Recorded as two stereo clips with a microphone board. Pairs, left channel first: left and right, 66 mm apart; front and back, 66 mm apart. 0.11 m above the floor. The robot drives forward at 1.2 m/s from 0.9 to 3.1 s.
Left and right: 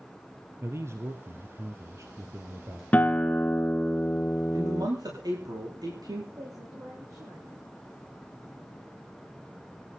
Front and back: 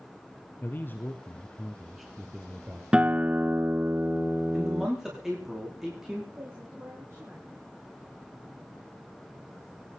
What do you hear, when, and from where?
0.6 s a man speaking: 55° right, 2.5 m; by 2.8 s 125° right, 2.5 m
2.9 s a guitar: 120° left, 0.8 m; by 4.9 s 140° left, 0.9 m
4.5 s a man speaking: 100° right, 9.5 m
6.4 s a woman speaking: 125° right, 7.5 m